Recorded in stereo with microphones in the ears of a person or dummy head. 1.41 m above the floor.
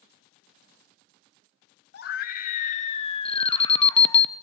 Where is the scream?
60° left (ahead or behind), 2 m; by 4.2 s 20° left (ahead or behind), 2.5 m.